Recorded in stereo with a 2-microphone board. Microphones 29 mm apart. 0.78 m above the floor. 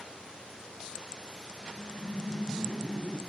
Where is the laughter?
65° left (ahead or behind), 2.5 m; by 3.2 s 70° left (ahead or behind), 4.5 m.